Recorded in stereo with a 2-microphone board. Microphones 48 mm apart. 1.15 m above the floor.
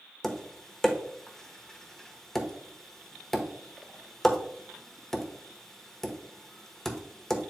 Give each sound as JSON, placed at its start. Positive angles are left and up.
{"t": 0.2, "sound": "tapping", "side_deg": 5, "distance_m": 1.1}